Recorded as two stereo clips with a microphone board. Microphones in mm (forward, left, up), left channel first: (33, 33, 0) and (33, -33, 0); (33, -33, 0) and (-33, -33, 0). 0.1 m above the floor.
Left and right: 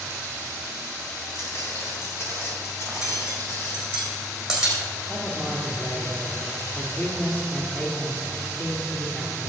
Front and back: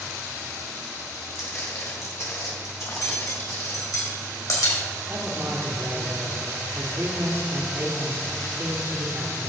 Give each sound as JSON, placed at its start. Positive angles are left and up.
{"t": 1.4, "sound": "footsteps", "azimuth_deg": 45, "distance_m": 4.0}
{"t": 2.9, "sound": "cutlery clinking", "azimuth_deg": -10, "distance_m": 3.5}
{"t": 5.1, "sound": "a man speaking", "azimuth_deg": 140, "distance_m": 2.0}